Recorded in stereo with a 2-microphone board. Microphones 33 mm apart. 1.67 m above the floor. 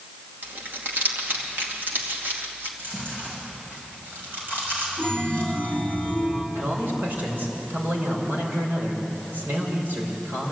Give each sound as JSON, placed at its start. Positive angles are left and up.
{"t": 0.4, "sound": "crumpling", "side_deg": -85, "distance_m": 3.0}
{"t": 2.8, "sound": "chewing", "side_deg": -85, "distance_m": 6.5}
{"t": 5.0, "sound": "a chime", "side_deg": -70, "distance_m": 3.5}
{"t": 6.5, "sound": "a man speaking", "side_deg": -85, "distance_m": 6.0}